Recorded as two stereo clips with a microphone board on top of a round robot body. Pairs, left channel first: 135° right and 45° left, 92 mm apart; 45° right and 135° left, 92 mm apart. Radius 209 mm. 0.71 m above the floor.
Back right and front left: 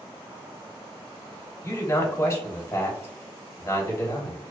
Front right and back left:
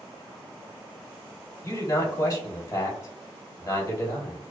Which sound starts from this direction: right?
A man speaking, at 1.6 s.